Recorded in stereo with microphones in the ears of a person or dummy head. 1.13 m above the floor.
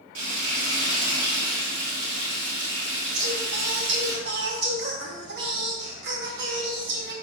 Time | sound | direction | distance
0.1 | frying | 75° right (ahead or behind) | 2.5 m
3.1 | singing | 70° right (ahead or behind) | 2.5 m